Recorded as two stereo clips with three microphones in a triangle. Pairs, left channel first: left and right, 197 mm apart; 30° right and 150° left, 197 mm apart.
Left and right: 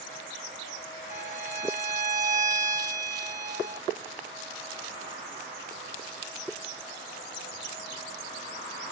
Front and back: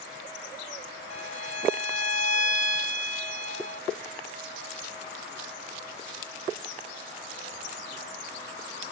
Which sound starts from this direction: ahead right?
A violin, at 1.1 s.